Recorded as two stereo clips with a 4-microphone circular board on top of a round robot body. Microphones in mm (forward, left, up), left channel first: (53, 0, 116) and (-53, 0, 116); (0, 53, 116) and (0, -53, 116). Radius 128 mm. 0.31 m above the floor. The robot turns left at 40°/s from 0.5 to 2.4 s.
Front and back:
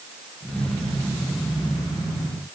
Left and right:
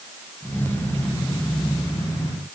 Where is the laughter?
I don't hear laughter.